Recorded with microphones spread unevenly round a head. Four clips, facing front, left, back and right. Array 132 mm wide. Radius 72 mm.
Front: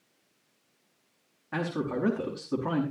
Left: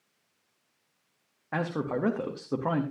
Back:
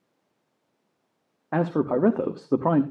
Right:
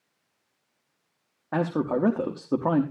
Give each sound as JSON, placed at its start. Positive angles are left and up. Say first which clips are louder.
{"t": 1.5, "sound": "a man speaking", "louder": "right 5 dB, back 8 dB", "azimuth_deg": -160, "distance_m": 0.7}